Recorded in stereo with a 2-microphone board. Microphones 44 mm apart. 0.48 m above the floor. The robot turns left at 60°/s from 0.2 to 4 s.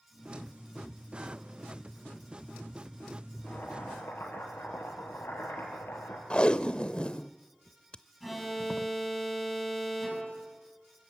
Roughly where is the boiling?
Behind left.